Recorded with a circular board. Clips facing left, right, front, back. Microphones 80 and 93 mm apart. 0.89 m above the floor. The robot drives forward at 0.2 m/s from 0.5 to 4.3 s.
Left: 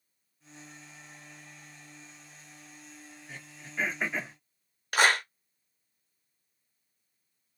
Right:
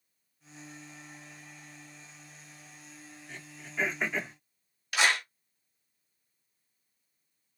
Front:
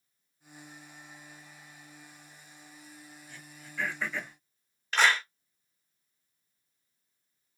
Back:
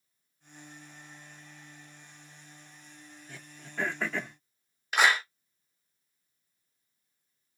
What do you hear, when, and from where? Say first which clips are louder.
3.3 s throat clearing: even, back 3 dB; 170° left, 1.1 m
4.9 s a clap: left 3 dB, back 1 dB; 105° left, 0.6 m